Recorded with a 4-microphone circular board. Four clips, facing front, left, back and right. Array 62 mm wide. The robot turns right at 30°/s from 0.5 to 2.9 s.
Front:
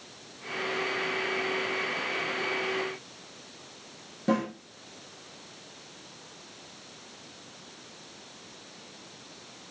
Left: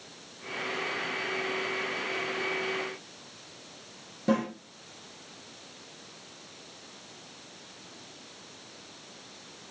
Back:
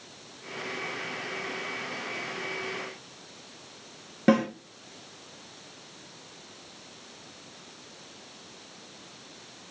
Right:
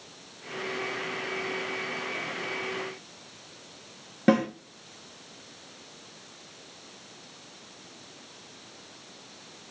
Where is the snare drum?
130° right, 1.7 m.